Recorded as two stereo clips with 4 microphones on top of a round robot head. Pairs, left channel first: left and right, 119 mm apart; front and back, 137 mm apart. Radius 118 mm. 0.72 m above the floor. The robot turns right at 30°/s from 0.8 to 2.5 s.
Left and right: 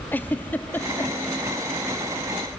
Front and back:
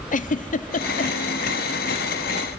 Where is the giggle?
15° left, 0.9 m; by 1.1 s 25° left, 0.9 m.